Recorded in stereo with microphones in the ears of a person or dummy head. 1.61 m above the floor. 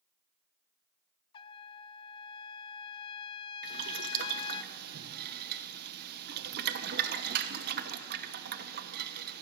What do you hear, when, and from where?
1.3 s a trumpet: 30° left (ahead or behind), 0.6 m
3.6 s boiling: 60° right (ahead or behind), 1.0 m